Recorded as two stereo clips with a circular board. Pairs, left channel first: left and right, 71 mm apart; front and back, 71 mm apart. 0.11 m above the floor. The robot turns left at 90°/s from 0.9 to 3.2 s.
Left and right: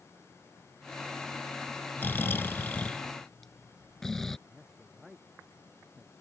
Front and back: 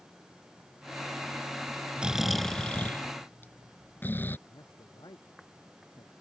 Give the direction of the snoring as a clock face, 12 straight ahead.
8 o'clock.